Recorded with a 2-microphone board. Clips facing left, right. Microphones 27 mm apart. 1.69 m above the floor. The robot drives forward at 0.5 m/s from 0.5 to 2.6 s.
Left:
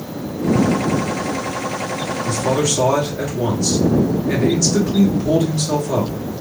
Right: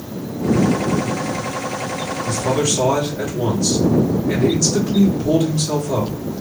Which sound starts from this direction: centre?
A man speaking, at 2.2 s.